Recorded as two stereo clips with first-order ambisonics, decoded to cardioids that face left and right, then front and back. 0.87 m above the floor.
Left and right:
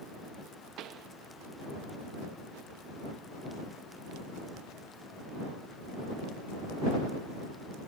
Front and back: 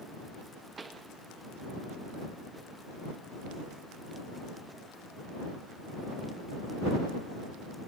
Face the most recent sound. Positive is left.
turn(degrees=-110)